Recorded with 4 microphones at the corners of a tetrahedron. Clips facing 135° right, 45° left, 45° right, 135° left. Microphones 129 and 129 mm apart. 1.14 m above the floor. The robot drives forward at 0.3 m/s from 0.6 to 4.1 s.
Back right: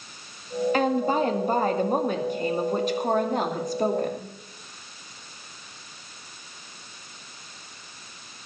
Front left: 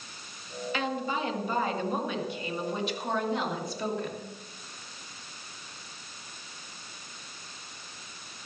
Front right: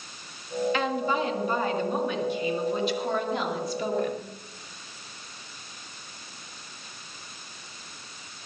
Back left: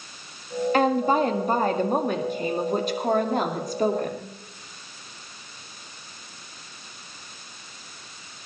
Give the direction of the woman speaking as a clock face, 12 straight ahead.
6 o'clock.